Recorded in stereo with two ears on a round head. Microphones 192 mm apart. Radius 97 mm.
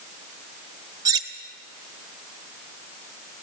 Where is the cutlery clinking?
20° right (ahead or behind), 1.1 m.